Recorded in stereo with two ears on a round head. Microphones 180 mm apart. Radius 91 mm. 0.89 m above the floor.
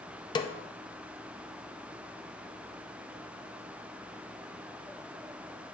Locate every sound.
0.3 s a snare drum: 20° left (ahead or behind), 0.5 m